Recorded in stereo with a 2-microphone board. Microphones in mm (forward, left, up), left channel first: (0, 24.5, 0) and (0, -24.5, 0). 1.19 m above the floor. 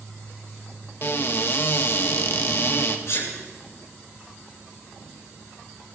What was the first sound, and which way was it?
A cupboard door, 50° left (ahead or behind).